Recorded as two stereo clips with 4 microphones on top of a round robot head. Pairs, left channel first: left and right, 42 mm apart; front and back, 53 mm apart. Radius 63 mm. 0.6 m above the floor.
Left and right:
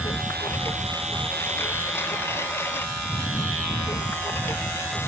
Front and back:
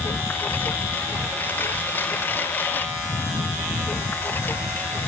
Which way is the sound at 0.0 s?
50° left.